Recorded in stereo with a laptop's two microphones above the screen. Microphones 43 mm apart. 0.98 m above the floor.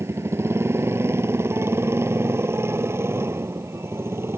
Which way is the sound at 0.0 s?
85° right.